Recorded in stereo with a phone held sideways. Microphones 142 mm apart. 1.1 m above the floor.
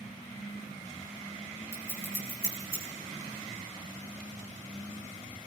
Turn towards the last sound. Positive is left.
turn(degrees=20)  # may be behind; listen again after turning